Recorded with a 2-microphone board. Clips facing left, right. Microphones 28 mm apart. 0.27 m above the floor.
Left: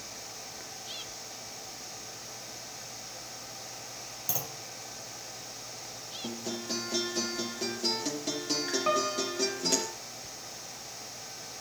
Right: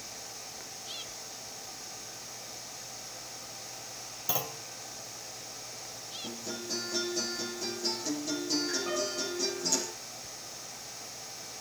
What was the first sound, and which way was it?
A clunk, 30° right (ahead or behind).